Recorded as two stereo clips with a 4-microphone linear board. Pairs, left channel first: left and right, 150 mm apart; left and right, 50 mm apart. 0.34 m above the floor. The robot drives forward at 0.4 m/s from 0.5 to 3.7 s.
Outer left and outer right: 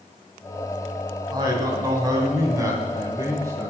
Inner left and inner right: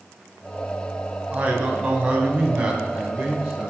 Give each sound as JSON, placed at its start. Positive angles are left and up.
{"t": 1.3, "sound": "a man speaking", "side_deg": -25, "distance_m": 2.5}